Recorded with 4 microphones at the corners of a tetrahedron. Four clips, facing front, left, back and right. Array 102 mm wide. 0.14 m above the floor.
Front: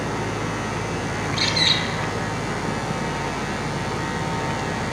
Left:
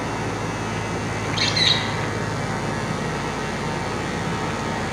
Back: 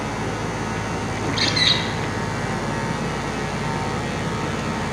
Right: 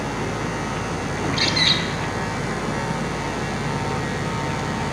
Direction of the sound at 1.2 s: 135° right.